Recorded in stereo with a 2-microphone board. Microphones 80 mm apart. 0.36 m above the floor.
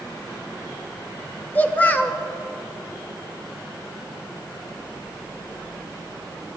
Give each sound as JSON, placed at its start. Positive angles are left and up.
{"t": 1.6, "sound": "a child speaking", "side_deg": 20, "distance_m": 0.6}